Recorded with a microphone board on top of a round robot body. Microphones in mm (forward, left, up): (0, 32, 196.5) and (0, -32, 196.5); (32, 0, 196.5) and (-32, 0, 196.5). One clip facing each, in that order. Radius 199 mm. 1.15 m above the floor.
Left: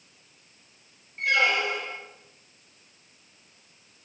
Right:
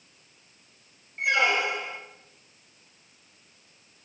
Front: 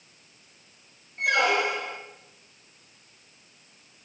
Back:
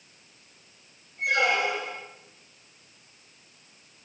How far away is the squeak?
About 1.7 m.